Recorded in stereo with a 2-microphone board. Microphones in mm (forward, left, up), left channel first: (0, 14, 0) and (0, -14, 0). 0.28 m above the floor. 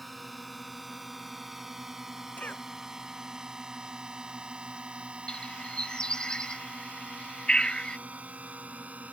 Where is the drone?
Centre (ahead or behind); by 9.1 s 60° right (ahead or behind).